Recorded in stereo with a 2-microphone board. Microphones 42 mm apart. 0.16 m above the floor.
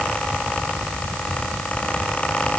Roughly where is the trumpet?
No trumpet in this recording.